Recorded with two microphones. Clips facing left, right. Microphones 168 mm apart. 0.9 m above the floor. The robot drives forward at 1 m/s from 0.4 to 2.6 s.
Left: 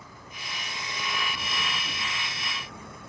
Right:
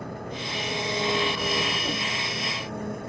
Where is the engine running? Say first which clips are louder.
Right 12 dB; 65° right (ahead or behind); by 3.1 s 60° right (ahead or behind).